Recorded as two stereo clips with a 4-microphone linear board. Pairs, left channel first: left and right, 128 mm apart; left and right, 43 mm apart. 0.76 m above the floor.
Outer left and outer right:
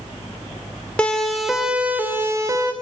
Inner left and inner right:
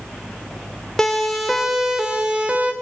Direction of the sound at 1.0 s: 10° left (ahead or behind).